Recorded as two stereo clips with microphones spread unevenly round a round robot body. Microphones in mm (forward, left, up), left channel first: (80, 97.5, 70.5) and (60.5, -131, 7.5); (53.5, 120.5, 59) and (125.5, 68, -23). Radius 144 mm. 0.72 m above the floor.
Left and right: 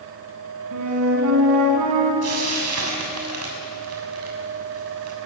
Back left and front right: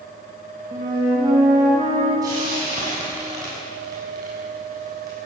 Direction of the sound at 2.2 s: 85° right.